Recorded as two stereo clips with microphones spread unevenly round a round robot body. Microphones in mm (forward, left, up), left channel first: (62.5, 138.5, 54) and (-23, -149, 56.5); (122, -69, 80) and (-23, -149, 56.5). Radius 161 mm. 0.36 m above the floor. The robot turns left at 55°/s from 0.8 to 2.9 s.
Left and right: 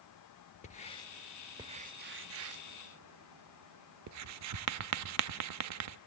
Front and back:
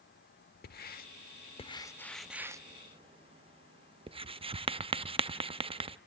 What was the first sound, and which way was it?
Writing, 10° left.